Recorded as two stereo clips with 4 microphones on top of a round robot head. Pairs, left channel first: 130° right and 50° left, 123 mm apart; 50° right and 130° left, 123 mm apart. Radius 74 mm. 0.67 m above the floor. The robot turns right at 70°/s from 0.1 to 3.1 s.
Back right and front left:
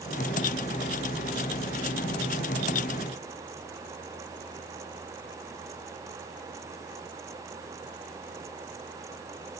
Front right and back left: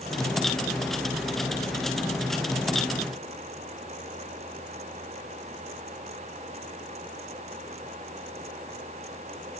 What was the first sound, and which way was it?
Only background noise.